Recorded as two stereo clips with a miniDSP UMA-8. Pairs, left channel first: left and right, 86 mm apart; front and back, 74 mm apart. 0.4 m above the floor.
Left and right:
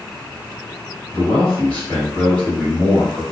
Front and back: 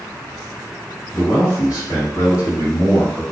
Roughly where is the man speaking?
Ahead.